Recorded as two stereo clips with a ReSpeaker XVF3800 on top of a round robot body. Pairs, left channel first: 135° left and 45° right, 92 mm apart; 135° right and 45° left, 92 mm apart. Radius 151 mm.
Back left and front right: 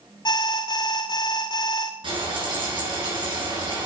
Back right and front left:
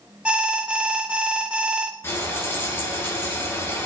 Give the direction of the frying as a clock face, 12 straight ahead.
2 o'clock.